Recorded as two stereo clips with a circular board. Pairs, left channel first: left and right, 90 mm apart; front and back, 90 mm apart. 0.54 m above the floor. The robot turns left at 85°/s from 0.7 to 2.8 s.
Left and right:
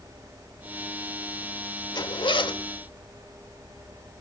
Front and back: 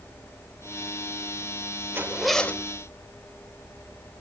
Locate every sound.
1.9 s a zipper: 120° left, 1.0 m; by 2.6 s 60° left, 1.0 m